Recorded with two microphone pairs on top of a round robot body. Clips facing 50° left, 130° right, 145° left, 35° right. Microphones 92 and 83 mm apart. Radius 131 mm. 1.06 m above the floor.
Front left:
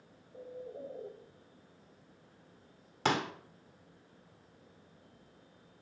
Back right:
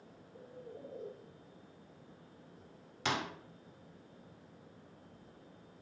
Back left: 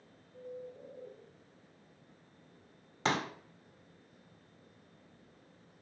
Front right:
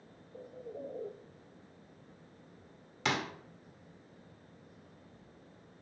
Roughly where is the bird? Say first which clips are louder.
Front left 6 dB, front right 1 dB; ahead.